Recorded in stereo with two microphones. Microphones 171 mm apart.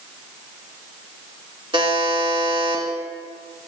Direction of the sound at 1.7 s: 30° right (ahead or behind).